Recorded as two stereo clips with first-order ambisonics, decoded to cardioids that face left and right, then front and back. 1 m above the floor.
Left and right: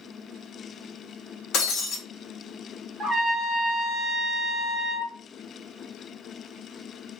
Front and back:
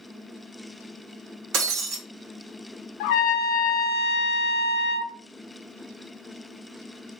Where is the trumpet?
10° right, 0.6 m.